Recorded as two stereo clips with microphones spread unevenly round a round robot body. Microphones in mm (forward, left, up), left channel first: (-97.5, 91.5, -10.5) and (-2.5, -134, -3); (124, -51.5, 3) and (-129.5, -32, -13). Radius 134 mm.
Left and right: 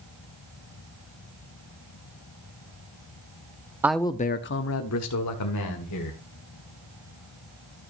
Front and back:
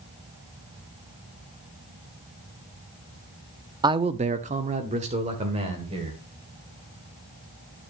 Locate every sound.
3.8 s a man speaking: 140° right, 0.6 m; by 6.2 s 105° left, 2.5 m